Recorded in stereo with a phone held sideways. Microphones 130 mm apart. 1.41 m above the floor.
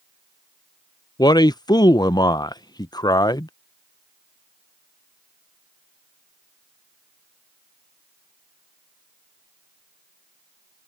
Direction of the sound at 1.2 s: 30° left (ahead or behind).